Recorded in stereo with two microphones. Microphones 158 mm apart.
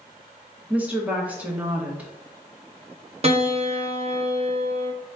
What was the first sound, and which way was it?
A woman speaking, 10° right (ahead or behind).